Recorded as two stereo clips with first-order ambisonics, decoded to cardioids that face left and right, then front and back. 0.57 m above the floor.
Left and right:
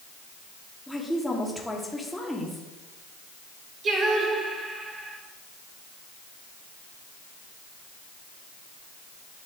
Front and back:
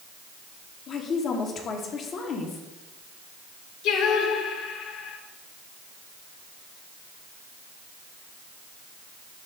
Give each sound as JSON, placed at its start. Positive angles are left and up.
{"t": 0.9, "sound": "a woman speaking", "azimuth_deg": 5, "distance_m": 1.3}
{"t": 3.8, "sound": "singing", "azimuth_deg": -30, "distance_m": 1.9}